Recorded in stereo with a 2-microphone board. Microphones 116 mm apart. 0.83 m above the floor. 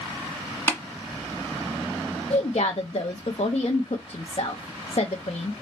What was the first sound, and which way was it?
Tapping, 20° left (ahead or behind).